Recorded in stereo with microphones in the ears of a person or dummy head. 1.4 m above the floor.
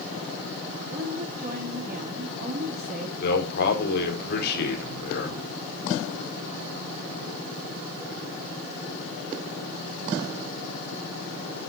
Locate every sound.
0.9 s a woman speaking: 45° right (ahead or behind), 4 m
3.2 s a man speaking: 55° left (ahead or behind), 4.5 m